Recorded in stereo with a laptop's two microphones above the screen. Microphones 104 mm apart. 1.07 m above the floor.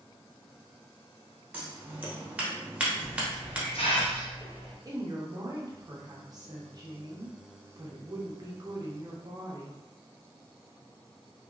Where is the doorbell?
I don't hear a doorbell.